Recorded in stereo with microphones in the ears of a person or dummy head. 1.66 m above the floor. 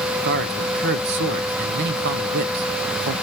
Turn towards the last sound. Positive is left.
turn(degrees=-50)  # may be behind; listen again after turning